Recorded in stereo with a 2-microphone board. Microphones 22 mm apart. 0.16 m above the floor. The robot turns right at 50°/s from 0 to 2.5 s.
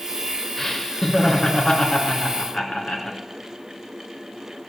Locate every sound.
0.6 s laughter: 15° left, 2.5 m; by 3.2 s 110° left, 2.5 m